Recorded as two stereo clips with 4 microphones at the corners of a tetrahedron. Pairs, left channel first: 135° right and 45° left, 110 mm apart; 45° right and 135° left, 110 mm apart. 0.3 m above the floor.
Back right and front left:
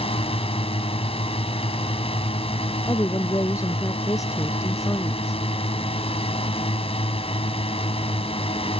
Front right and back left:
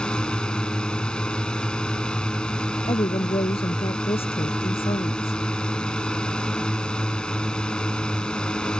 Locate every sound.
0.0 s a drone: 125° right
2.9 s a woman speaking: 75° right